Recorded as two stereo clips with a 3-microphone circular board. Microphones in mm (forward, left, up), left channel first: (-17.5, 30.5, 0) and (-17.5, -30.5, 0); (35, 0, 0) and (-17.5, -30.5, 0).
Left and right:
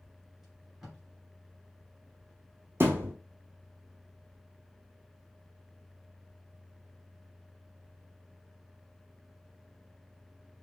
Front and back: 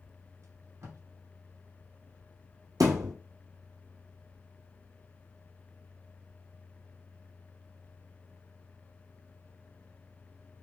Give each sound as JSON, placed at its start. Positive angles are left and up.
{"t": 0.4, "sound": "tape being pulled", "azimuth_deg": -170, "distance_m": 1.9}
{"t": 2.8, "sound": "a thud", "azimuth_deg": -145, "distance_m": 0.9}